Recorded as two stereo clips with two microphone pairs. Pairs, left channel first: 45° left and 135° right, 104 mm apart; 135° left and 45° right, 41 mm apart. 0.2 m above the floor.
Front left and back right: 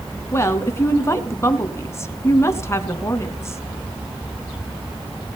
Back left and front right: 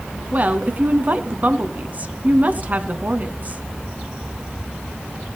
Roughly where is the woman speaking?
Ahead.